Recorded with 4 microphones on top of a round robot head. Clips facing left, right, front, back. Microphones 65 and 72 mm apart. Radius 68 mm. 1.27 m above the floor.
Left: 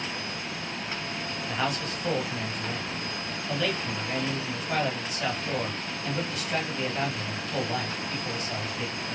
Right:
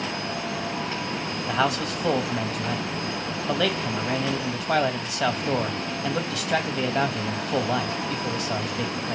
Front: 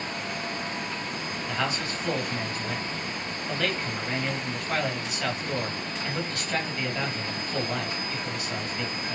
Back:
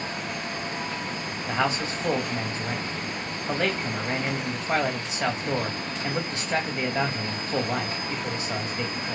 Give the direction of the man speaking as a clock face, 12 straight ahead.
4 o'clock.